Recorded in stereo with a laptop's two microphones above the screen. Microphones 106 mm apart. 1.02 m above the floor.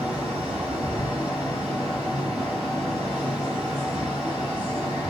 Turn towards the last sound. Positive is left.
turn(degrees=-10)  # may be behind; listen again after turning